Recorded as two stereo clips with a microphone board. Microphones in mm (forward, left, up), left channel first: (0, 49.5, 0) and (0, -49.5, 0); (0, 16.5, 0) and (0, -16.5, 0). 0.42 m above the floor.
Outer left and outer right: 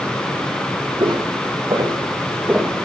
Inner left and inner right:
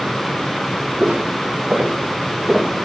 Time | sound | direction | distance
1.0 | footsteps | 60° right (ahead or behind) | 2.5 m